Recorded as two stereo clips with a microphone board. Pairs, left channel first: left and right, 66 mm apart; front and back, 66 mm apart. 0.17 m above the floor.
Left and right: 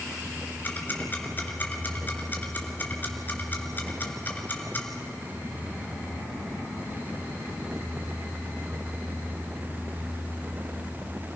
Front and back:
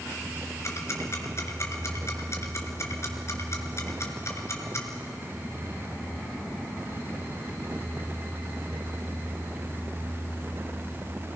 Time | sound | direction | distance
0.6 | ticking | 35° left | 2.5 m